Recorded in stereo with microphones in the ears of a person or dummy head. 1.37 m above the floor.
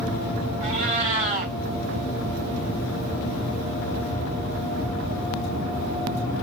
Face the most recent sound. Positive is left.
turn(degrees=-45)  # may be behind; listen again after turning